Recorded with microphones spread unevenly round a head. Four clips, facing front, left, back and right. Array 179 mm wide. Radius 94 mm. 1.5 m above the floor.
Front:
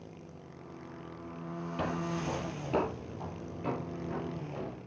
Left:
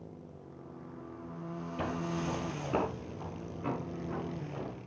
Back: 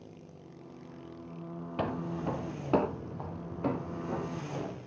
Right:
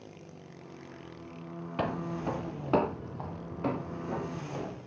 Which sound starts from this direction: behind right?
Footsteps, at 1.8 s.